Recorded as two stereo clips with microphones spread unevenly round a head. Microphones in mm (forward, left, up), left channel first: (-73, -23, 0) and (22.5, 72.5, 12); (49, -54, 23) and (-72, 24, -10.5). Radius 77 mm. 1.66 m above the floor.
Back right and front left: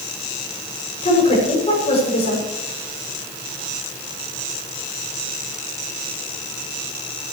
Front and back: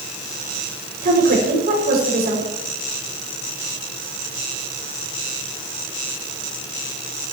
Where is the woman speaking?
Straight behind, 7.5 m.